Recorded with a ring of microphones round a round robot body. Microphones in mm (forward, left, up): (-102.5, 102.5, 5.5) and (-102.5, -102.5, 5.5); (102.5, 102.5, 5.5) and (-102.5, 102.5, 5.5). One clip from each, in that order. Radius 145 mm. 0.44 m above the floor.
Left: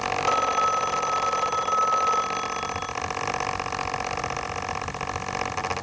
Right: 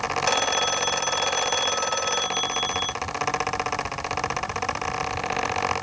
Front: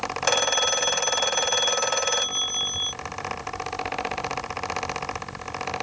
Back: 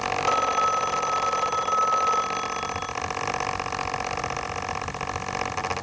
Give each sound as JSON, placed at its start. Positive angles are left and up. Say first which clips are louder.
{"t": 0.2, "sound": "a phone ringing", "louder": "left 1 dB, front 1 dB", "azimuth_deg": -35}